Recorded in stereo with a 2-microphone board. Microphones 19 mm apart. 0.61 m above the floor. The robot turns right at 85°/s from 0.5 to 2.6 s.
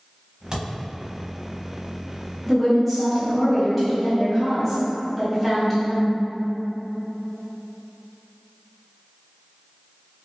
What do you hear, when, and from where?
0.5 s a thud: 35° right (ahead or behind), 1.0 m; by 0.7 s 50° right (ahead or behind), 1.0 m
2.5 s a woman speaking: 10° right (ahead or behind), 1.0 m; by 6.2 s 5° right (ahead or behind), 1.0 m